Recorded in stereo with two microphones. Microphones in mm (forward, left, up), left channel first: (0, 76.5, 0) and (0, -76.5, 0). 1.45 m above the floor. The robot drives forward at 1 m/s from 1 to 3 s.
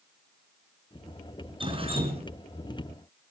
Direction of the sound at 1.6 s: 35° right (ahead or behind).